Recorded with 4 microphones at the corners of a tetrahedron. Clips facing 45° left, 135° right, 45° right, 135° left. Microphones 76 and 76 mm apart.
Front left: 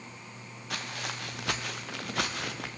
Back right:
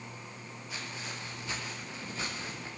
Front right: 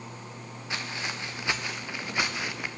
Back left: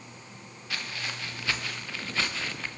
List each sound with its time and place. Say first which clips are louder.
0.7 s footsteps: front left 5 dB, front right 2 dB; 25° left, 3.5 m; by 2.8 s 30° left, 2.5 m